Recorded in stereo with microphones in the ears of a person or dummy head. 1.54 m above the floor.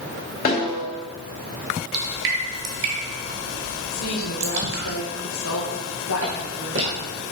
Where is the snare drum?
45° left (ahead or behind), 2.5 m.